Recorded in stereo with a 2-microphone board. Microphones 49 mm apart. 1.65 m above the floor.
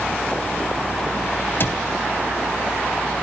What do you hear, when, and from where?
1.6 s a cupboard door: 50° left (ahead or behind), 1.9 m